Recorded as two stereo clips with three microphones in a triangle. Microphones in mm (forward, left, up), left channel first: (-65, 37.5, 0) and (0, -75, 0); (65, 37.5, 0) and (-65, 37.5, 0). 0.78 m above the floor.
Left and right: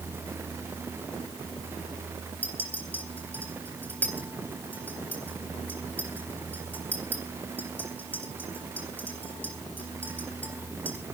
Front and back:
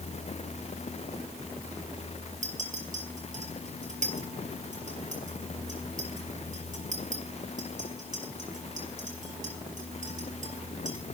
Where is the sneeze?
No sneeze in this recording.